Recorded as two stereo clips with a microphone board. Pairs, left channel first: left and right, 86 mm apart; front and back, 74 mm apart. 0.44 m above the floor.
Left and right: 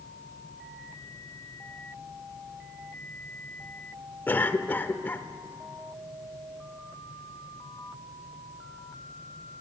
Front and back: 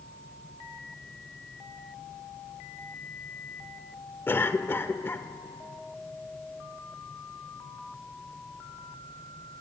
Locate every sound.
4.3 s a cough: 40° left, 1.2 m